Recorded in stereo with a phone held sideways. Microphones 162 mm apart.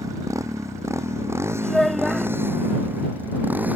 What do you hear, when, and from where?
0.0 s a motorcycle: 20° right (ahead or behind); by 3.8 s 10° right (ahead or behind)
1.6 s a child speaking: centre (ahead or behind)